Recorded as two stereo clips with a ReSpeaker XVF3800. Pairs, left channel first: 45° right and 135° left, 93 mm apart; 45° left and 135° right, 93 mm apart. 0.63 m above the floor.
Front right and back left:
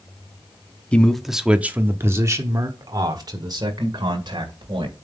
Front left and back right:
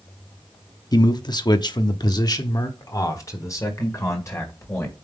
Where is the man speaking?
30° left, 0.8 m; by 4.9 s 105° left, 2.5 m.